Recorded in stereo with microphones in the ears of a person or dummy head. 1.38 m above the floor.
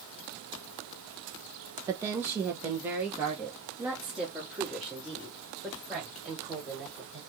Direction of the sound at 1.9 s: 25° right (ahead or behind).